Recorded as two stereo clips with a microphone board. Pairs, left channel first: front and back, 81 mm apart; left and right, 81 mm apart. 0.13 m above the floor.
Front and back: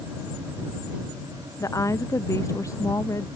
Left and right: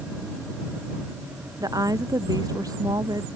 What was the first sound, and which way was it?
A woman speaking, 50° right.